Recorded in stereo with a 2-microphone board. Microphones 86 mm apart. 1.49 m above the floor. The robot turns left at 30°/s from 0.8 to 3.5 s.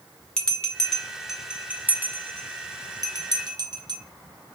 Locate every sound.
0.4 s a bell: 10° left (ahead or behind), 0.7 m; by 4.0 s 55° right (ahead or behind), 0.7 m